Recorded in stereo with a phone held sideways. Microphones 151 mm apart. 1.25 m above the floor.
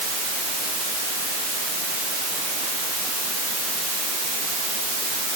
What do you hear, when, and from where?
Only background noise.